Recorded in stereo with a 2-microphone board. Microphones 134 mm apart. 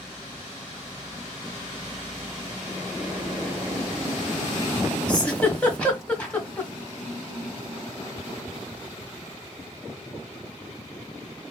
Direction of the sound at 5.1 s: 10° left (ahead or behind).